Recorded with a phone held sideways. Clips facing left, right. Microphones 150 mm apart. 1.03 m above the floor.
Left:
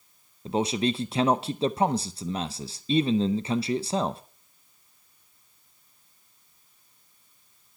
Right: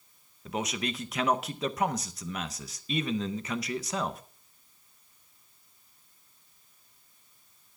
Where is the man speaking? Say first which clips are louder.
Left 8 dB; 30° left (ahead or behind), 0.5 m.